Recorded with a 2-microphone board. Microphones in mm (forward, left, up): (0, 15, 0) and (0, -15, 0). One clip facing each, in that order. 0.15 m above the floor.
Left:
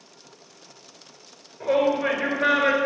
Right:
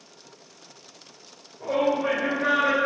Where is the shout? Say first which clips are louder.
Left 2 dB; 55° left (ahead or behind), 2.5 m.